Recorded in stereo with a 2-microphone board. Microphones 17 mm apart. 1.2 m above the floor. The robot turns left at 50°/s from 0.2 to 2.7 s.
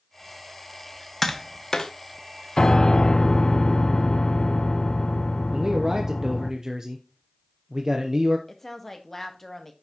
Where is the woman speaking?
15° left (ahead or behind), 1.6 m.